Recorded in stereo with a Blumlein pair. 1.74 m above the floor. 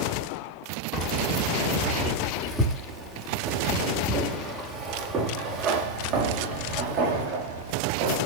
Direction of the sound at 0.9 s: 25° left.